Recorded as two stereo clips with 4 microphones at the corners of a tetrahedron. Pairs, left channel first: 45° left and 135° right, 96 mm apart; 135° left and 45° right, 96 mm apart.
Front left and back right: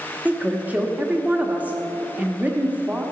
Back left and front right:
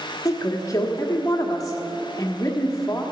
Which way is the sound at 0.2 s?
160° left.